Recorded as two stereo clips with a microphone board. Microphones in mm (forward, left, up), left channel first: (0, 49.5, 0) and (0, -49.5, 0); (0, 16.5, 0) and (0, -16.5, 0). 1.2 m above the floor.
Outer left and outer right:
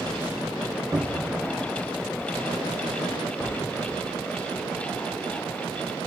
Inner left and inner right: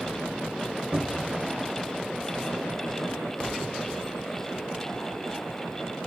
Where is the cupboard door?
40° right (ahead or behind), 1.0 m.